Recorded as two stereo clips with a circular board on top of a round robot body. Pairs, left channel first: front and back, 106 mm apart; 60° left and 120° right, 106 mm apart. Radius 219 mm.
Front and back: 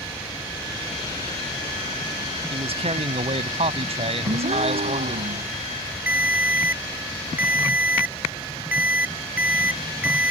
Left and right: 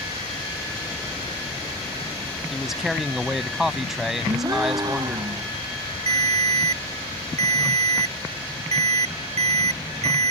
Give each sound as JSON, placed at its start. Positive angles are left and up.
{"t": 2.5, "sound": "a man speaking", "azimuth_deg": 155}
{"t": 4.2, "sound": "a gasp", "azimuth_deg": -175}
{"t": 6.1, "sound": "a ringtone", "azimuth_deg": -105}